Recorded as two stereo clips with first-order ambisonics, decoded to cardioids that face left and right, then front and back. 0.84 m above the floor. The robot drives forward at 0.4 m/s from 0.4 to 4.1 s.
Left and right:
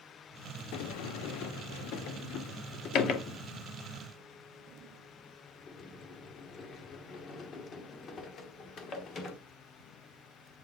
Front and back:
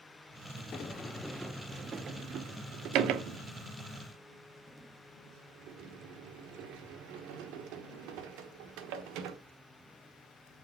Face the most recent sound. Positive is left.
turn(degrees=155)